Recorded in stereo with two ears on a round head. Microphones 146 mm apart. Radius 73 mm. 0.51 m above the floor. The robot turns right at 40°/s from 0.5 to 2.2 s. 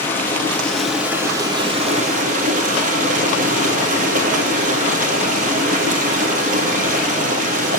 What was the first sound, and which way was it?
Running water, 165° left.